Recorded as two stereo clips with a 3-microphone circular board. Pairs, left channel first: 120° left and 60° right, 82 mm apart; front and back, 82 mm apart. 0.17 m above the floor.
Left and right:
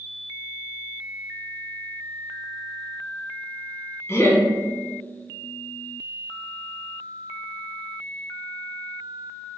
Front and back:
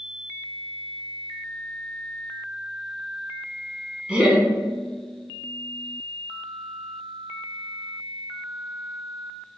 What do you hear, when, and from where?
4.1 s laughter: 115° left, 1.2 m